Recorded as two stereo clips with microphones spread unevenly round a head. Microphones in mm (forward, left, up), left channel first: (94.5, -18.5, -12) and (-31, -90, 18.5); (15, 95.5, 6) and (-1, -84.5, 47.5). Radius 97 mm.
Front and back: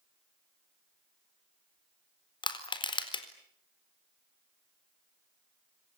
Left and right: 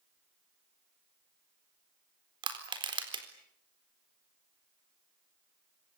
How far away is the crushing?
About 4 m.